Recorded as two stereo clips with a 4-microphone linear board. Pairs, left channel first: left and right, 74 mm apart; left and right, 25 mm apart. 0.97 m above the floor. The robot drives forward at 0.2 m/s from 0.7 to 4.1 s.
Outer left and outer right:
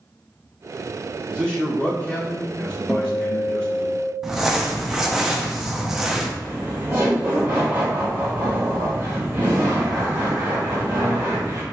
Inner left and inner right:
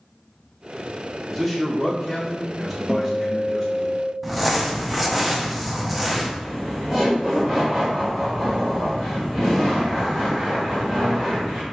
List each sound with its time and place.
1.3 s a man speaking: 15° left (ahead or behind), 1.8 m; by 3.9 s 10° left (ahead or behind), 2.5 m
2.9 s a guitar: 5° left (ahead or behind), 0.8 m; by 4.1 s 10° left (ahead or behind), 0.6 m
4.2 s crumpling: 5° right (ahead or behind), 0.6 m
6.4 s laughter: 25° right (ahead or behind), 1.4 m